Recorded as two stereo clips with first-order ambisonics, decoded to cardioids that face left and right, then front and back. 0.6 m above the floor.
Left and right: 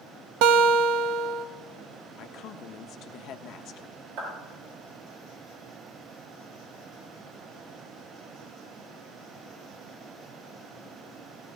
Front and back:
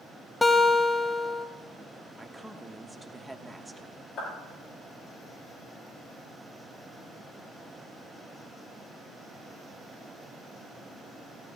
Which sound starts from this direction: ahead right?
A clap, at 4.2 s.